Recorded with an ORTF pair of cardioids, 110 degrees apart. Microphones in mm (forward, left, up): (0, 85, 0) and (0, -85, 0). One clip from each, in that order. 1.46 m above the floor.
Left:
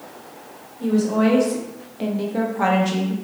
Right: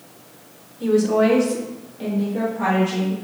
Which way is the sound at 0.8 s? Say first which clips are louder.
Right 3 dB; 15° right.